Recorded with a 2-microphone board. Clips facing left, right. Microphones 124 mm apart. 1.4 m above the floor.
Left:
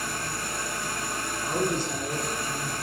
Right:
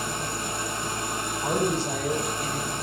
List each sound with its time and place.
0.0 s an engine running: 20° right (ahead or behind), 1.1 m
1.4 s a woman speaking: 80° right, 4 m